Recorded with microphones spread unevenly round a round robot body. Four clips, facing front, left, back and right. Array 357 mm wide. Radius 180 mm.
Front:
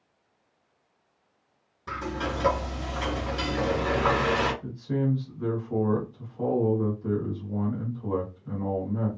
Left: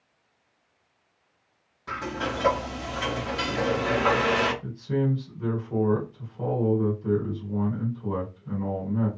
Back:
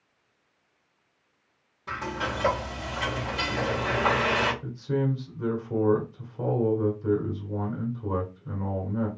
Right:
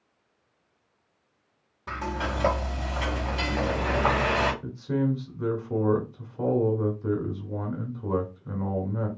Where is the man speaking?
135° right, 1.9 m.